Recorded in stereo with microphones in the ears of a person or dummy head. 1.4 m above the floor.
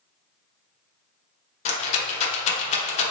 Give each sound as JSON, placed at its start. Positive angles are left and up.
{"t": 1.6, "sound": "a rattle", "side_deg": 45, "distance_m": 0.8}